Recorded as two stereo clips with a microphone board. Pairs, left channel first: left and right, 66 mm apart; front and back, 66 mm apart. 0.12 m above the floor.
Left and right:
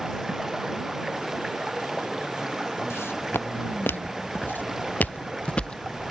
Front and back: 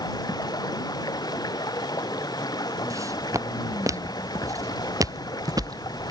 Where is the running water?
5° right.